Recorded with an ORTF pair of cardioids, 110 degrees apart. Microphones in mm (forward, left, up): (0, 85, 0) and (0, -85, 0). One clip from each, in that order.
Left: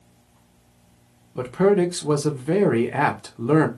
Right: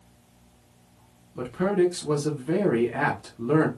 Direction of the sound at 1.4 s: 40° left.